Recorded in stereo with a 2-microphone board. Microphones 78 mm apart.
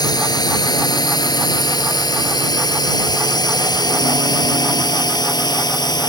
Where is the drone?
60° left (ahead or behind).